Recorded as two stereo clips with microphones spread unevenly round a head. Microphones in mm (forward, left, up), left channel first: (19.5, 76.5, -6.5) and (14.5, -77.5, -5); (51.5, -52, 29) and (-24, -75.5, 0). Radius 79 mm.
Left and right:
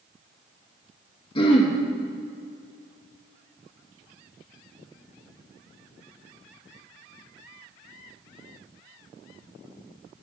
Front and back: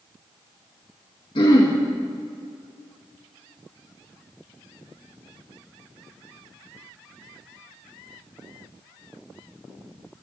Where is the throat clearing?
30° left, 1.9 m.